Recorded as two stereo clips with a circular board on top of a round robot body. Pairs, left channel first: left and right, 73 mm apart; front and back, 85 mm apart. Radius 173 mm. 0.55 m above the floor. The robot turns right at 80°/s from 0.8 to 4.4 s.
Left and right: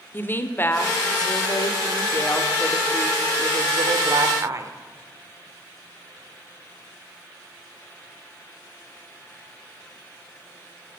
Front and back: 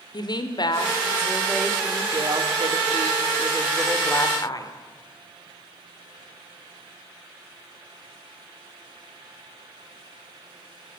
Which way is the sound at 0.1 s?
30° left.